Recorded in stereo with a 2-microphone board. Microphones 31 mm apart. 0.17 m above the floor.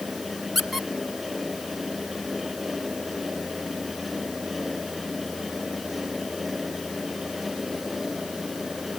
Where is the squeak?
Centre (ahead or behind), 0.9 m.